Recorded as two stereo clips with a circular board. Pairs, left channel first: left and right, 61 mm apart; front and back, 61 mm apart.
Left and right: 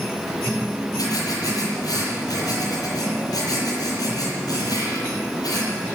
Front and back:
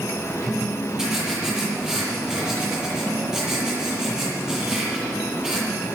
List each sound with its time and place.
1.0 s writing: 100° left, 8.5 m